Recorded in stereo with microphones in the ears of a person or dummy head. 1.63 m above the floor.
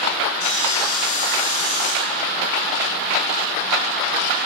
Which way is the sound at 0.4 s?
65° left (ahead or behind).